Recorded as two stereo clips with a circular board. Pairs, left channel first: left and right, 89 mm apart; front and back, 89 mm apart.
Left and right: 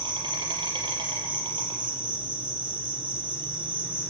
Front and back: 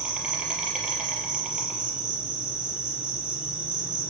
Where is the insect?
100° right, 5 m.